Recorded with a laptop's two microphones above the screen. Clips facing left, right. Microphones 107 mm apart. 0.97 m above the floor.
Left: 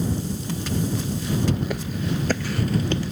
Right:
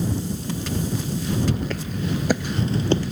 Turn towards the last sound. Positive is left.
turn(degrees=-35)  # may be behind; listen again after turning